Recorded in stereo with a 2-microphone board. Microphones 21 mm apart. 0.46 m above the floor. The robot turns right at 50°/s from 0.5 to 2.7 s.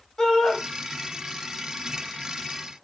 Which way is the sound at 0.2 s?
25° left (ahead or behind).